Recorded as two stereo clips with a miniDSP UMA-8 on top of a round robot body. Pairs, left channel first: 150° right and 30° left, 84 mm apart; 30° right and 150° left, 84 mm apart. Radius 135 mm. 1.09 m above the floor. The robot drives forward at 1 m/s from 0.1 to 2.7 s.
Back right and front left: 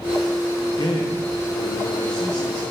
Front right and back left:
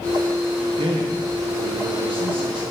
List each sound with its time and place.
0.7 s a man speaking: 170° left, 1.2 m; by 2.6 s 175° left, 3 m